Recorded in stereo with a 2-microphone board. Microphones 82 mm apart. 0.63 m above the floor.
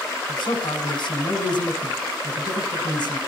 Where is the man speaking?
70° left (ahead or behind), 3 m.